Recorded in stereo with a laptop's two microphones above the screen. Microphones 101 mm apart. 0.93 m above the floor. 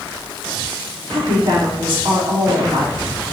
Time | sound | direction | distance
1.1 | a woman speaking | 70° right (ahead or behind) | 2.5 m